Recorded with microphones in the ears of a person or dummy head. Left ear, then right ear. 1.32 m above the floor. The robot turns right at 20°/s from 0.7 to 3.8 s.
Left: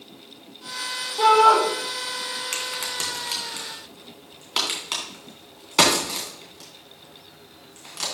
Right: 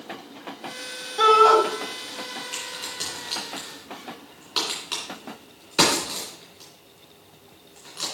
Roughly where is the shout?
Right.